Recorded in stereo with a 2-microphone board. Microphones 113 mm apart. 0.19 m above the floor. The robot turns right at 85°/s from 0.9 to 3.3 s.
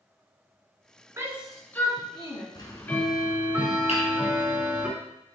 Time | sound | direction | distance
1.2 | a shout | 25° right (ahead or behind) | 2.0 m
2.5 | ticking | 130° left | 1.3 m
3.9 | hammering | 65° left (ahead or behind) | 3.5 m